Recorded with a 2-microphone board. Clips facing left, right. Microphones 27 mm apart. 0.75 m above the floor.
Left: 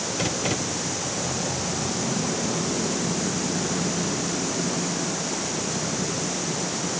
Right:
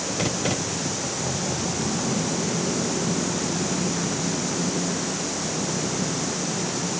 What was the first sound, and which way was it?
Only background noise.